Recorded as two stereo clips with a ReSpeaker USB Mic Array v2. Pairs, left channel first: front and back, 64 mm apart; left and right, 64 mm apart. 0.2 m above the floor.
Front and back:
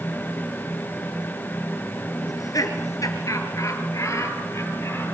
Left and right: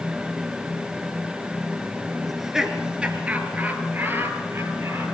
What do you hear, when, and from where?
2.3 s laughter: straight ahead, 3 m; by 5.0 s 45° right, 5 m